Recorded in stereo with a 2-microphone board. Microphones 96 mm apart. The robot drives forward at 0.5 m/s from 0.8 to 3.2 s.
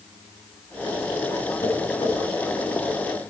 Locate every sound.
1.6 s tapping: 85° left, 6.5 m